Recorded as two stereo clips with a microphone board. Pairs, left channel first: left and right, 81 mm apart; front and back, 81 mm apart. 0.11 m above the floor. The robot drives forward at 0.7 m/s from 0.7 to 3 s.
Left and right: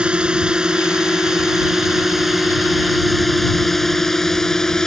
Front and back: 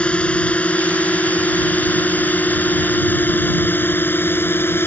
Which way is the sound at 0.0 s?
40° right.